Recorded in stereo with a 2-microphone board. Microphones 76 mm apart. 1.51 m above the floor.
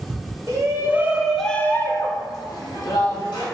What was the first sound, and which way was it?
A shout, 40° right (ahead or behind).